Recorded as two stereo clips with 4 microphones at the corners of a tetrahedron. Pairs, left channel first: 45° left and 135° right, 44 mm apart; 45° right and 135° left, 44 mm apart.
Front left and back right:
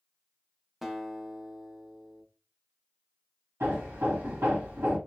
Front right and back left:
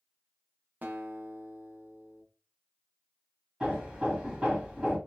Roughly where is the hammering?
Behind right.